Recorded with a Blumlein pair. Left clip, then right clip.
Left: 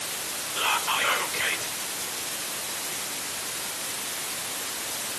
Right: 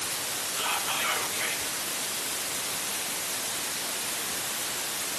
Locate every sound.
0.6 s whispering: 65° left, 3.5 m